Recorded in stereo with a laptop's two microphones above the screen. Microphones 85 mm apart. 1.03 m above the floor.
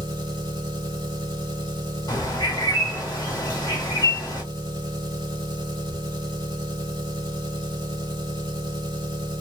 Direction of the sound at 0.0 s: 65° right (ahead or behind).